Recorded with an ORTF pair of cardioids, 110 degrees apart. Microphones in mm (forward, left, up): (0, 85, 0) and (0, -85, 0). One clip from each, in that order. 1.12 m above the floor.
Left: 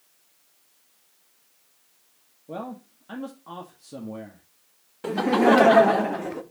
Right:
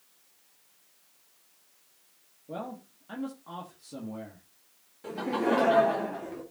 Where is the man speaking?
20° left, 1.9 m.